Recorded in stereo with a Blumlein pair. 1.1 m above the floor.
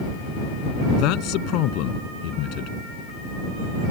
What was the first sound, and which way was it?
A man speaking, 40° left.